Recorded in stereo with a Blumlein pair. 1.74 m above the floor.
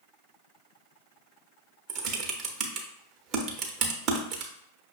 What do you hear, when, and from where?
1.9 s typing on a keyboard: 35° right, 0.7 m